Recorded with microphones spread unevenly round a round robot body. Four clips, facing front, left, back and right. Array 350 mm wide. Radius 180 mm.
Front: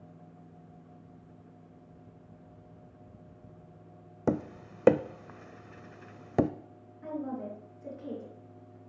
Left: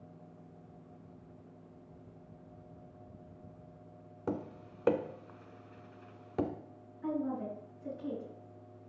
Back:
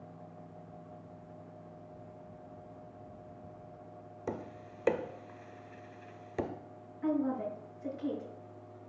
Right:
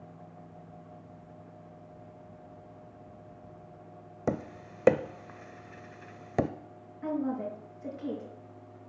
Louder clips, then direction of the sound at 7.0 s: Right 3 dB, back 5 dB; 115° right.